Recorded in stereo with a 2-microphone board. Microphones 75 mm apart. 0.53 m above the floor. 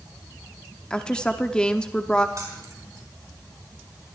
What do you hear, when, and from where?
0.9 s a woman speaking: 10° left (ahead or behind), 0.9 m
2.4 s keys jangling: 45° right (ahead or behind), 3.5 m